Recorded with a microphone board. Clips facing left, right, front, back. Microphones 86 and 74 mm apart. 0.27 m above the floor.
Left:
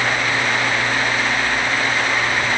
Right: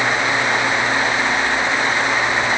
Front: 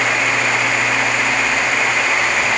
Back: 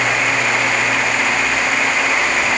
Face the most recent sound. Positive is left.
No sound to turn to.